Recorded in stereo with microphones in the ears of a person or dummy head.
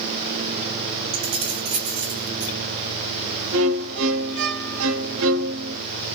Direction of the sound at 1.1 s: 35° right (ahead or behind).